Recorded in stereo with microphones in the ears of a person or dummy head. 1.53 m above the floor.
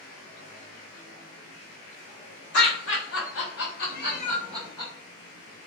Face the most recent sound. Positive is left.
turn(degrees=65)  # may be behind; listen again after turning